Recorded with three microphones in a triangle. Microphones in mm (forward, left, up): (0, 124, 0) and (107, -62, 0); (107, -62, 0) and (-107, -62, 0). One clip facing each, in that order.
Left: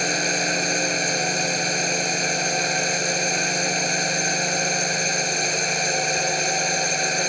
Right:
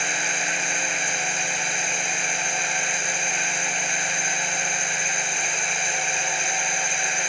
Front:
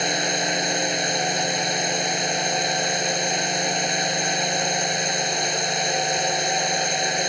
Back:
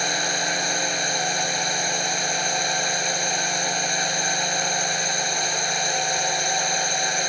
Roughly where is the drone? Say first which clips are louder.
Left 7 dB, front 3 dB; left.